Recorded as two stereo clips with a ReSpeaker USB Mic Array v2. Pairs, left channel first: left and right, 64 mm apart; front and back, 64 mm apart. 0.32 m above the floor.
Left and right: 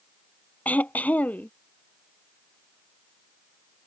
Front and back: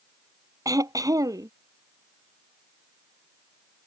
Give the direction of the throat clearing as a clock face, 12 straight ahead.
7 o'clock.